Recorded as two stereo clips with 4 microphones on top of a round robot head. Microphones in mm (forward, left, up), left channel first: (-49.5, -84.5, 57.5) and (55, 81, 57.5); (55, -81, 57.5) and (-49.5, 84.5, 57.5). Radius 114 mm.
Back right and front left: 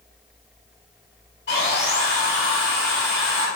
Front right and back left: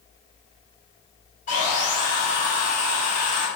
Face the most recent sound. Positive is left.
turn(degrees=-100)